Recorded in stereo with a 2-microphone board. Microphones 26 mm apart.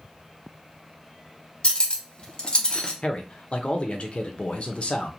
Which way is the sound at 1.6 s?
40° left (ahead or behind).